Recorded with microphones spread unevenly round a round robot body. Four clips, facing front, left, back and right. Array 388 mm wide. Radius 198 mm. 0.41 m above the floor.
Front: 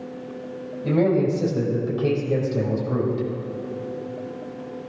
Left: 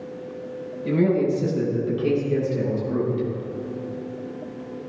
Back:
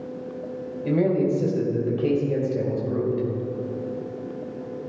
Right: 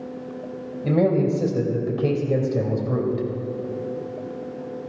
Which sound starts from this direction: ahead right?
A man speaking, at 0.8 s.